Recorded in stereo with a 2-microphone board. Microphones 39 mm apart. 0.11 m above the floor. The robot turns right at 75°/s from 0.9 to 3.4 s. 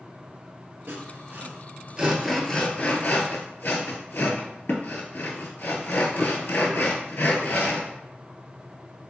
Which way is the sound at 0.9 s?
60° right (ahead or behind).